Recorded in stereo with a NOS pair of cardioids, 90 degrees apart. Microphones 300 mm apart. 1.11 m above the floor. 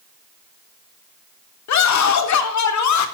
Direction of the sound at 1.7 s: 65° left.